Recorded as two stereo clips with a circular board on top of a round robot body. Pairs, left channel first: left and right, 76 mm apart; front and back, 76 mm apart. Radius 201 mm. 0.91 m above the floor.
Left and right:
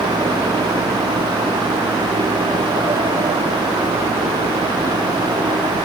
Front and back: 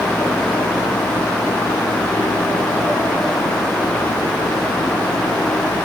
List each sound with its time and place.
Only background noise.